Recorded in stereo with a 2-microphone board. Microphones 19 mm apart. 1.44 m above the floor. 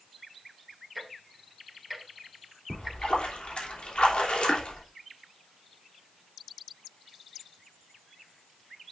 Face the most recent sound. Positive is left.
turn(degrees=75)  # may be behind; listen again after turning